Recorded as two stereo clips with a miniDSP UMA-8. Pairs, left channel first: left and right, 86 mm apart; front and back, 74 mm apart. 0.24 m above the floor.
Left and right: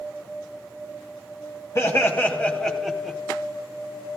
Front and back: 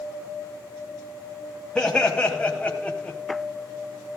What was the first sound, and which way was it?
Laughter, 65° left.